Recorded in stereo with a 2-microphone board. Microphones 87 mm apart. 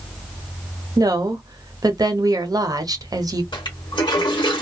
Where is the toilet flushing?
65° left (ahead or behind), 1.3 m.